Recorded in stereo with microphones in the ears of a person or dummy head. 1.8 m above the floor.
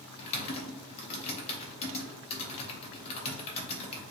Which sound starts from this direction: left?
Typing on a keyboard, at 0.2 s.